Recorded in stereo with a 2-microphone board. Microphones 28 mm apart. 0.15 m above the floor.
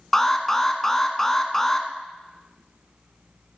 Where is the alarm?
15° left (ahead or behind), 1.1 m.